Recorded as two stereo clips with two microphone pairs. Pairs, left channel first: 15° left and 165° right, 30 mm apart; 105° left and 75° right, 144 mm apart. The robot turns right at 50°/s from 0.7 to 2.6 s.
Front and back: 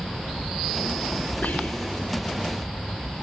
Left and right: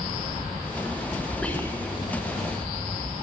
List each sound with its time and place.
1.4 s whispering: 25° left, 6 m; by 2.1 s 60° left, 6 m